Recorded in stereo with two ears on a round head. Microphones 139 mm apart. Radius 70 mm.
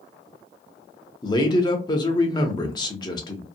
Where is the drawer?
I don't hear a drawer.